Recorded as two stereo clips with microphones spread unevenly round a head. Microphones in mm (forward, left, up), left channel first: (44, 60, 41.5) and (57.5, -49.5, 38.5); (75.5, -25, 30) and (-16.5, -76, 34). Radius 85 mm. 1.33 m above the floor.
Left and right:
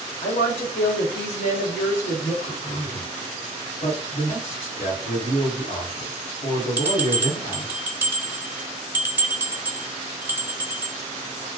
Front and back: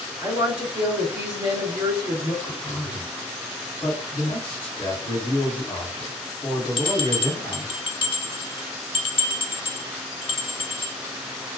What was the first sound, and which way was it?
A woman speaking, 135° left.